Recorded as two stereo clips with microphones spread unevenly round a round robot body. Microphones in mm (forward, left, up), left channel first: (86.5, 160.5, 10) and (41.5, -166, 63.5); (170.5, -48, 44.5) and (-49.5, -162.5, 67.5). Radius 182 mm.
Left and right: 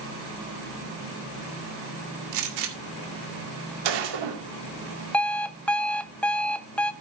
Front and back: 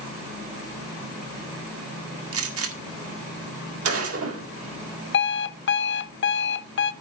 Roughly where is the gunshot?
Behind right.